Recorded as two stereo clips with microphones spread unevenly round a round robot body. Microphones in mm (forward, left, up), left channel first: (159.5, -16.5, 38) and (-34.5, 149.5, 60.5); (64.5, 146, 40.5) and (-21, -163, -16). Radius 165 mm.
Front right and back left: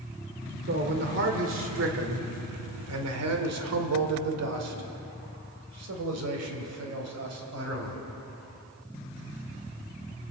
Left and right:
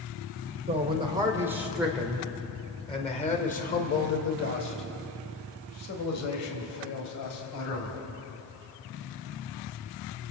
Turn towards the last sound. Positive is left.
turn(degrees=110)